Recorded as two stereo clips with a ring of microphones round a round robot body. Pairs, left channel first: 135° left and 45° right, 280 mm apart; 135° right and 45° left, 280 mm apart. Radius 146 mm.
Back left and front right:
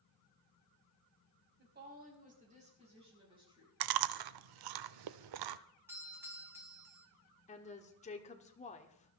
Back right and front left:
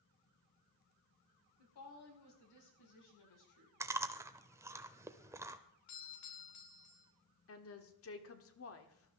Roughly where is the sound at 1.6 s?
Right.